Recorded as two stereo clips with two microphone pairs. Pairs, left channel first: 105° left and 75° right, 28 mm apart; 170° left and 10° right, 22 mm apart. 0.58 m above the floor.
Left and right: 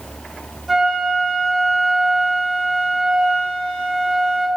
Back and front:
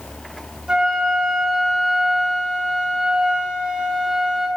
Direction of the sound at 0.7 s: 5° left.